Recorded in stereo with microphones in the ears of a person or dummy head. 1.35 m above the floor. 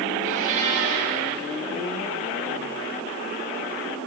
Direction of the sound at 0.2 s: 45° right (ahead or behind).